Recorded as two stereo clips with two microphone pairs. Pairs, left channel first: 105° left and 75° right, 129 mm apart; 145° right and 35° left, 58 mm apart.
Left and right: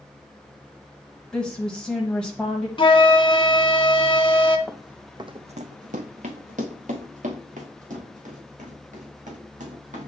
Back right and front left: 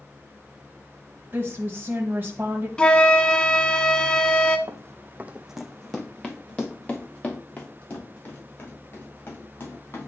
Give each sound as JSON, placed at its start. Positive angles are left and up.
{"t": 1.3, "sound": "a woman speaking", "azimuth_deg": 25, "distance_m": 1.1}
{"t": 2.8, "sound": "a flute", "azimuth_deg": 145, "distance_m": 0.7}
{"t": 4.7, "sound": "running footsteps", "azimuth_deg": 20, "distance_m": 0.8}